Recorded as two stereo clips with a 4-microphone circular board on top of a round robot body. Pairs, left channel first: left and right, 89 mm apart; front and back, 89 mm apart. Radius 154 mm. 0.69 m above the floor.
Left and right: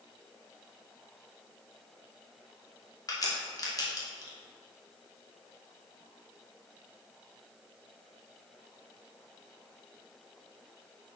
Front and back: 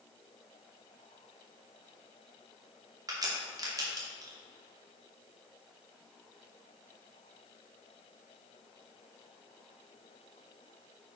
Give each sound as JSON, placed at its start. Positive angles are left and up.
{"t": 3.1, "sound": "a crack", "azimuth_deg": 135, "distance_m": 2.5}